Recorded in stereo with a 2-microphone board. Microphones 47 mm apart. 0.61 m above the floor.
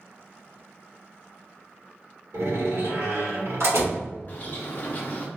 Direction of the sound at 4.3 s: 40° left (ahead or behind).